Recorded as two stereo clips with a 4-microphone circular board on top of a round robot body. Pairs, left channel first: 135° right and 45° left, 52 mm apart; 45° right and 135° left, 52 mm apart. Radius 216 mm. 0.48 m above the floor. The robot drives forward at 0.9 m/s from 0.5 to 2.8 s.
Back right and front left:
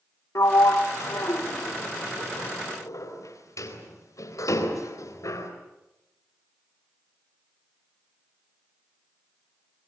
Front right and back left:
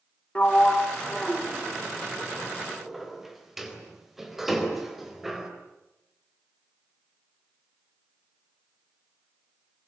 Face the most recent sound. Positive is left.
turn(degrees=-140)